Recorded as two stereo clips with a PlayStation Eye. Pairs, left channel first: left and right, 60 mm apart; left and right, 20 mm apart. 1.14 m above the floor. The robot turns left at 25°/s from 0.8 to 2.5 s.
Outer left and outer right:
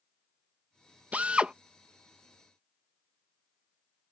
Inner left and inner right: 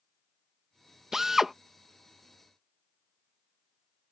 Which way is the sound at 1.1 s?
25° right (ahead or behind).